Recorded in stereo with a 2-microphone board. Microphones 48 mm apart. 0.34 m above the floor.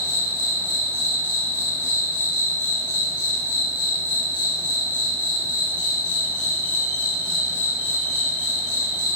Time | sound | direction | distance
0.0 | an insect | 40° right (ahead or behind) | 1.4 m